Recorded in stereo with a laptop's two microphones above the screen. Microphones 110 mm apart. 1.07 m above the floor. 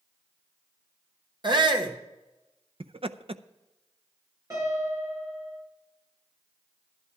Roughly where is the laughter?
Right.